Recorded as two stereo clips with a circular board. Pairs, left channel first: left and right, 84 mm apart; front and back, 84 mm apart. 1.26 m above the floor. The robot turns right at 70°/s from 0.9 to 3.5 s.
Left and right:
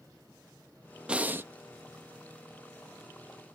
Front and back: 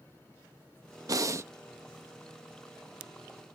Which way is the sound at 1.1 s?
160° right.